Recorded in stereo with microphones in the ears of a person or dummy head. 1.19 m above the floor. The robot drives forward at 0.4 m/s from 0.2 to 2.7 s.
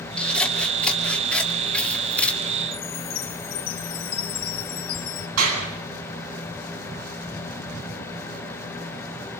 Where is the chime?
30° left (ahead or behind), 5 m.